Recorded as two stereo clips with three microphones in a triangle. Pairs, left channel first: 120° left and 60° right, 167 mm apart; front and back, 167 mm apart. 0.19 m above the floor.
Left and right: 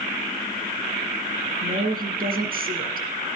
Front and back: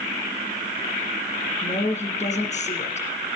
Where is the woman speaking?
40° right, 3.5 m.